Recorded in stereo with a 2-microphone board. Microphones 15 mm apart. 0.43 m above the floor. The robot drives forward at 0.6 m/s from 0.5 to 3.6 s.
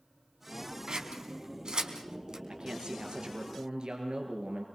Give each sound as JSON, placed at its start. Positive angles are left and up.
{"t": 0.9, "sound": "scissors", "side_deg": -65, "distance_m": 3.5}
{"t": 2.5, "sound": "a man speaking", "side_deg": -85, "distance_m": 6.0}